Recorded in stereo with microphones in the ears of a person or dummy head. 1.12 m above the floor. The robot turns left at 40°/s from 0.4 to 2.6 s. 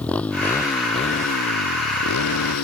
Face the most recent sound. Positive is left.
turn(degrees=85)